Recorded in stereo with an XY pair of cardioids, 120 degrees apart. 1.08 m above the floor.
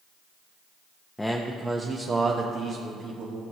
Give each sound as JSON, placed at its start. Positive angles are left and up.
{"t": 1.2, "sound": "a man speaking", "azimuth_deg": 10, "distance_m": 0.8}